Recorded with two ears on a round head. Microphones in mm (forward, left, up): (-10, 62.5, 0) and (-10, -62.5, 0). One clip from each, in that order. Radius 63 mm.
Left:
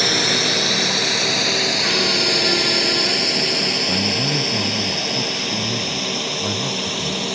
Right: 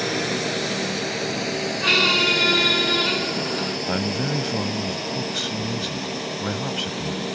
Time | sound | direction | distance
0.0 | a drone | 60° left (ahead or behind) | ?
1.8 | a squeak | 75° right (ahead or behind) | ?
3.9 | a man speaking | 65° right (ahead or behind) | ?